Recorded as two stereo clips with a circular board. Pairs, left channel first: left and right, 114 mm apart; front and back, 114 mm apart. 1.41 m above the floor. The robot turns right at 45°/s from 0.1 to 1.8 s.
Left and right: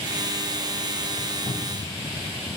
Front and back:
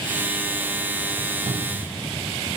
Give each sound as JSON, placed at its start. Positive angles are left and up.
{"t": 1.5, "sound": "a cupboard door", "azimuth_deg": 140, "distance_m": 0.5}